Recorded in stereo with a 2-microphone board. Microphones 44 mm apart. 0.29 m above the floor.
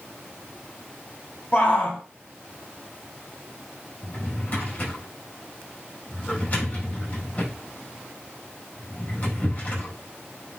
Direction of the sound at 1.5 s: 40° left (ahead or behind).